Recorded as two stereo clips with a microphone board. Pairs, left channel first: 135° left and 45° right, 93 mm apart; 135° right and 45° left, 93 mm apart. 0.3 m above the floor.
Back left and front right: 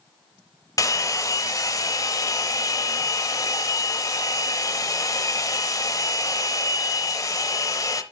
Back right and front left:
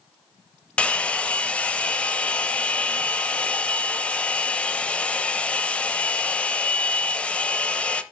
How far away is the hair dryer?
About 0.7 m.